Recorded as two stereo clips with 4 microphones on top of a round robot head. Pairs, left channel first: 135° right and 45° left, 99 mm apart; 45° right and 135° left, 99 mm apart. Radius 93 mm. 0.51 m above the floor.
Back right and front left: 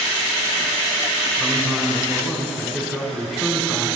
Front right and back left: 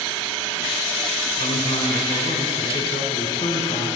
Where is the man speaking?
40° right, 2.5 m.